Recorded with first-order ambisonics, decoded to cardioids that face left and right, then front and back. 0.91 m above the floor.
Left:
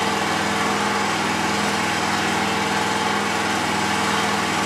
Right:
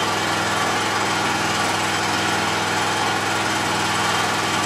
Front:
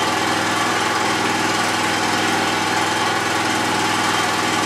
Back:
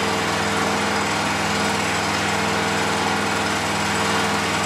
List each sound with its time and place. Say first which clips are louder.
0.0 s an engine running: even, front 3 dB; 10° right, 2.5 m